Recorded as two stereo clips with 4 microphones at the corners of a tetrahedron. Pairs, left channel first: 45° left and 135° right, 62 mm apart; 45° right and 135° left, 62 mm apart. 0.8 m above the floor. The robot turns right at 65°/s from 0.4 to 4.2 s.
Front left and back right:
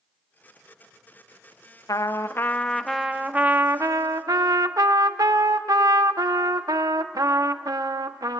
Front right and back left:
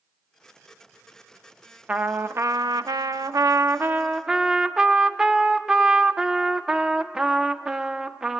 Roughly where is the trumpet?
Ahead left.